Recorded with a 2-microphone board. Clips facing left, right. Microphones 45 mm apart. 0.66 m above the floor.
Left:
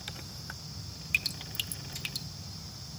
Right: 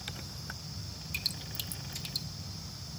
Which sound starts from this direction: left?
Dripping, at 1.1 s.